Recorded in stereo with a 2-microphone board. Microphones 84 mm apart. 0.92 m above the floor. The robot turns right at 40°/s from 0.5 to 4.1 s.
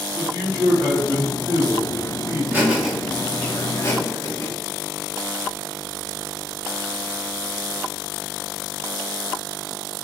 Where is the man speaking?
110° right, 1.7 m; by 2.4 s 30° right, 1.7 m.